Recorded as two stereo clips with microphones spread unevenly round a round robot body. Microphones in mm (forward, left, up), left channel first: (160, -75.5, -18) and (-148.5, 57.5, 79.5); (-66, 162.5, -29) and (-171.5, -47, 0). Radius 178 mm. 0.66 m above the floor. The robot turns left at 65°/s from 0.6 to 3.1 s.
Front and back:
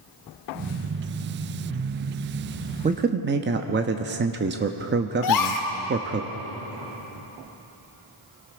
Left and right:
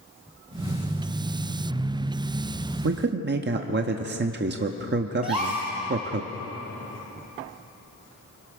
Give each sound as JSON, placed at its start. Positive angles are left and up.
{"t": 2.8, "sound": "a man speaking", "azimuth_deg": -120, "distance_m": 0.9}
{"t": 5.2, "sound": "a gasp", "azimuth_deg": -40, "distance_m": 1.5}